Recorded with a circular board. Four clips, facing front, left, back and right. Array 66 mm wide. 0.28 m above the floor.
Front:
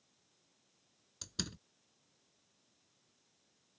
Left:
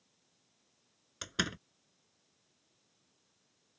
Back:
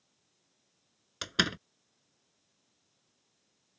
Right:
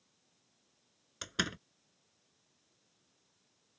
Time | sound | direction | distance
1.2 | a door slam | straight behind | ?